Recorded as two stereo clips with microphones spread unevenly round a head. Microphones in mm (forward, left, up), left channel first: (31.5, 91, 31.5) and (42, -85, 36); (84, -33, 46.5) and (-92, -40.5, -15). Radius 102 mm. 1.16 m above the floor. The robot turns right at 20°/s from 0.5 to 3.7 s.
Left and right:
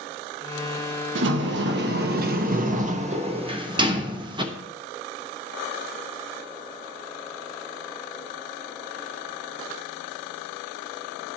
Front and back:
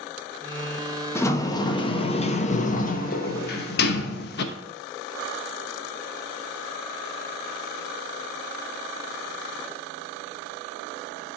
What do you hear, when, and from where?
1.1 s a sliding door: 75° right, 1.0 m; by 4.5 s 20° right, 1.0 m